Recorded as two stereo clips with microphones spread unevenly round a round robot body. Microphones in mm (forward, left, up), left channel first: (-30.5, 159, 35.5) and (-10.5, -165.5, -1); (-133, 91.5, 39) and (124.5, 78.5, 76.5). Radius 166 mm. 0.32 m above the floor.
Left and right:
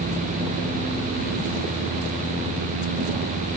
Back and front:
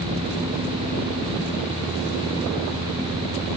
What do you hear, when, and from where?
Only background noise.